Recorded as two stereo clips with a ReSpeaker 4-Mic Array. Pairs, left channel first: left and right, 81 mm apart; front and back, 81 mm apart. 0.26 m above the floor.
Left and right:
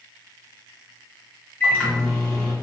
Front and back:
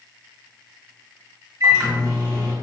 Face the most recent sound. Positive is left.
turn(degrees=145)